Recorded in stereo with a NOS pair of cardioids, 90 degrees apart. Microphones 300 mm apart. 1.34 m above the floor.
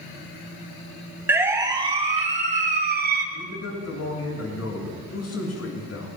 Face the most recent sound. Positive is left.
turn(degrees=60)